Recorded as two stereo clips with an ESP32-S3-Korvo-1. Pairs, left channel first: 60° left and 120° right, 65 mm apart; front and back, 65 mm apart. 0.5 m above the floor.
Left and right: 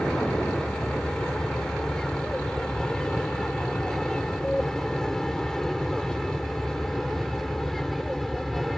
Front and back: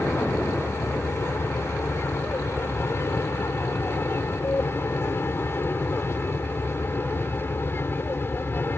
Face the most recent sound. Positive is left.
turn(degrees=-30)